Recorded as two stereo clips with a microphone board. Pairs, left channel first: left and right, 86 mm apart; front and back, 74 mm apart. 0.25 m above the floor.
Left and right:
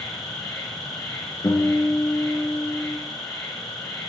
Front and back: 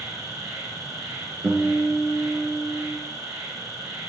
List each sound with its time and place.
0.0 s an insect: 135° left, 3.5 m
1.4 s a guitar: 130° left, 2.5 m